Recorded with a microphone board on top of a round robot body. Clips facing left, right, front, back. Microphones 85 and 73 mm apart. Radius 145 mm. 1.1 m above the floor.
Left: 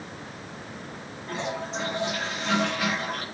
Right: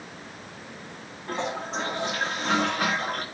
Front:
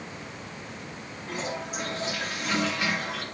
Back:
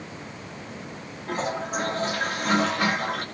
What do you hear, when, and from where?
1.3 s a toilet flushing: 140° right, 4 m